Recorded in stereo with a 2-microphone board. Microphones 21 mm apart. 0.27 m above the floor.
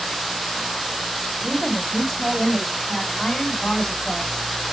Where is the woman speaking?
5° left (ahead or behind), 1.8 m; by 4.5 s 45° left (ahead or behind), 2 m.